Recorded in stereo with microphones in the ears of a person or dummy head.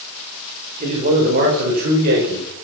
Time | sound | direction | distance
0.8 | a man speaking | 45° right (ahead or behind) | 5.5 m